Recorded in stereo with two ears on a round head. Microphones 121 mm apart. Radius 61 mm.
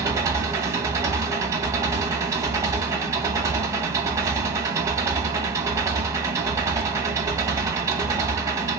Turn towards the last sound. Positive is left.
turn(degrees=-25)  # may be behind; listen again after turning